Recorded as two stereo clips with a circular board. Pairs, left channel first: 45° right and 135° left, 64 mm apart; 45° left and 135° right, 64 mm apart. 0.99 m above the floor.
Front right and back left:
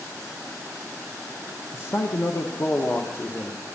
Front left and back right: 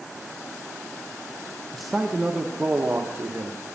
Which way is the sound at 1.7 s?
40° right.